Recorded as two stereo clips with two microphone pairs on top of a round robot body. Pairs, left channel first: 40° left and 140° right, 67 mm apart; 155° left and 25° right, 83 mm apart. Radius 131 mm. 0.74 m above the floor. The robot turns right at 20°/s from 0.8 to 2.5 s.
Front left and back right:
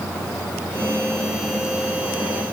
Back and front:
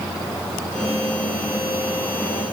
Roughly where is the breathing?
No breathing in this recording.